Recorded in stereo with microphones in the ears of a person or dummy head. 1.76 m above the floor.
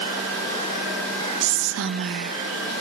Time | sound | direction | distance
1.4 | whispering | 70° right (ahead or behind) | 1.0 m